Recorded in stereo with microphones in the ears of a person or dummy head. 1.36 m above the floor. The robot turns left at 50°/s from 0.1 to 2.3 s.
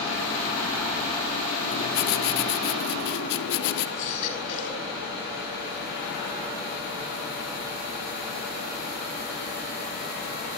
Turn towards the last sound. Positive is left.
turn(degrees=50)  # may be behind; listen again after turning